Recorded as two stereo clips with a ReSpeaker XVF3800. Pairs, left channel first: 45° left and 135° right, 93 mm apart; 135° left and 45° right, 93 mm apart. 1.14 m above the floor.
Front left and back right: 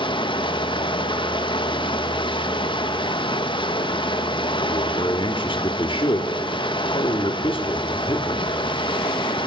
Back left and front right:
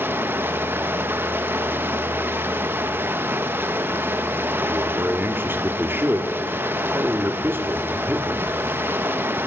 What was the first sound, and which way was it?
Running water, 20° left.